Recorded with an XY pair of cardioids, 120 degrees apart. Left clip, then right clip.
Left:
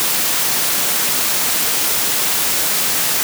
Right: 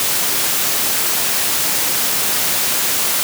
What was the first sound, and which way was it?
Only background noise.